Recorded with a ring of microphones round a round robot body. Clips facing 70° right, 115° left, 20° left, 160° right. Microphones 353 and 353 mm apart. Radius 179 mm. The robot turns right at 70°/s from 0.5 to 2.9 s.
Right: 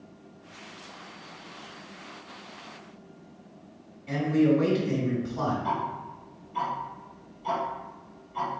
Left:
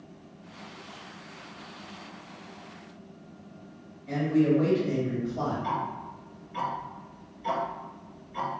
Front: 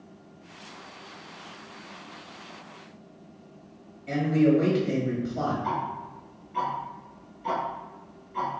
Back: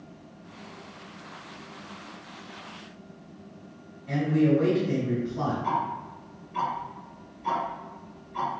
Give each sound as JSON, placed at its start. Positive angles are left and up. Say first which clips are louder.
{"t": 4.1, "sound": "a man speaking", "louder": "right 1 dB, front 1 dB", "azimuth_deg": 10, "distance_m": 1.9}
{"t": 5.6, "sound": "ticking", "louder": "right 1 dB, even", "azimuth_deg": 120, "distance_m": 1.9}